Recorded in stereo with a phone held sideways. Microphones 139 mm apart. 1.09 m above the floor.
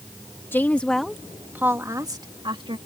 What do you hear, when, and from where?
0.5 s a woman speaking: 15° left (ahead or behind); by 2.8 s 40° right (ahead or behind)